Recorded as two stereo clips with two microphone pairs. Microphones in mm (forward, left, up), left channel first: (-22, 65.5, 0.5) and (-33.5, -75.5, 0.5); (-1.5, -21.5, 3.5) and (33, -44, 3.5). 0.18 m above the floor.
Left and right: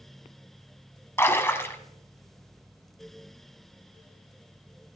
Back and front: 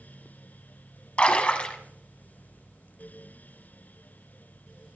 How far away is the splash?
About 1.6 m.